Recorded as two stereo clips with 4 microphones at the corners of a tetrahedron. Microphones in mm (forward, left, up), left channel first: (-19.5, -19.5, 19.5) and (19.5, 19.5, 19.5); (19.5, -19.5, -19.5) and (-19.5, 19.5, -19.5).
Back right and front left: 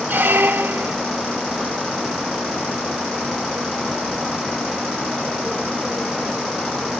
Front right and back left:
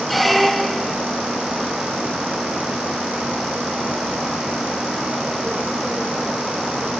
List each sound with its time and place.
0.1 s a squeak: 45° left, 0.5 m